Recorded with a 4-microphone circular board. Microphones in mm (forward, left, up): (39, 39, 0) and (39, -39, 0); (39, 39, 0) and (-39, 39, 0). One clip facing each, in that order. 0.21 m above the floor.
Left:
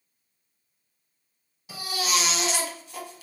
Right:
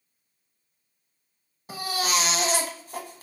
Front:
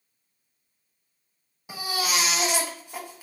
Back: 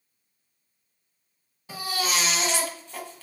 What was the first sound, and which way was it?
A baby crying, 70° right.